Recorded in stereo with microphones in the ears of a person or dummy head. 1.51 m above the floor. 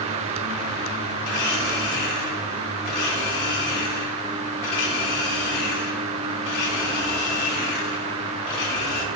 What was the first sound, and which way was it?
A blender, 25° left (ahead or behind).